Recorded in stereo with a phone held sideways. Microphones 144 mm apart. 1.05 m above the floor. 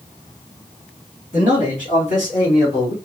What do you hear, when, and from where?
1.3 s a man speaking: 60° left (ahead or behind), 2 m; by 3.0 s 45° left (ahead or behind), 3 m